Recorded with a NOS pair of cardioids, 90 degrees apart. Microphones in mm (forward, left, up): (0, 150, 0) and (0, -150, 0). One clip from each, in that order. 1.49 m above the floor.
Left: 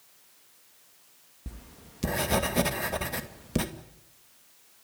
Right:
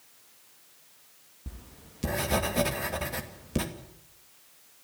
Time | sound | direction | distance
1.5 | writing | 20° left | 2.5 m